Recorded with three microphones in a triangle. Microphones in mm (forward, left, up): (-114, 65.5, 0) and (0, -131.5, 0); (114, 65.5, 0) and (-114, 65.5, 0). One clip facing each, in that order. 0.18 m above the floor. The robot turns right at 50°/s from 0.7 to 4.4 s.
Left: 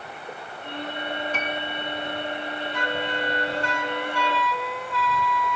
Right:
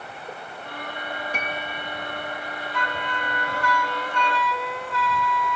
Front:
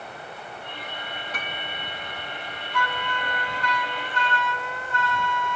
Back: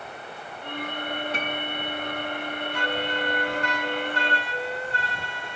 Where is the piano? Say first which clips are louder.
Left 2 dB, back 6 dB; 130° right; by 1.8 s 110° right.